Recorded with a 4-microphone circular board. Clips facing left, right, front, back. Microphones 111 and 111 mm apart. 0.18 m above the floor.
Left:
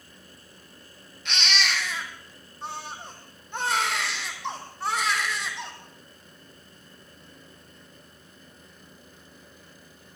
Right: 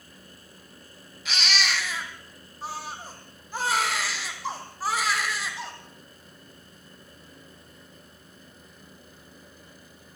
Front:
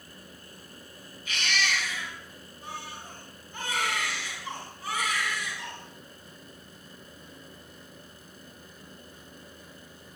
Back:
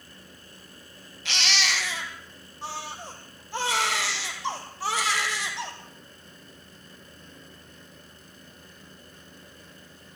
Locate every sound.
1.2 s a baby crying: straight behind, 5 m